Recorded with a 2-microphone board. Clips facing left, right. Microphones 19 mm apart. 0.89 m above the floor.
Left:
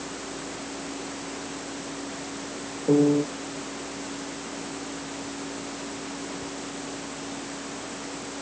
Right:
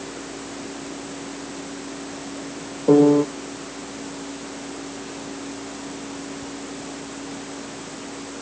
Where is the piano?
60° right (ahead or behind).